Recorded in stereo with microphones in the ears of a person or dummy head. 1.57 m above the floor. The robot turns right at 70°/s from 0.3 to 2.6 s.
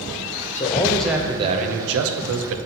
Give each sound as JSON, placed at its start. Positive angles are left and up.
{"t": 0.6, "sound": "a man speaking", "azimuth_deg": 150, "distance_m": 0.7}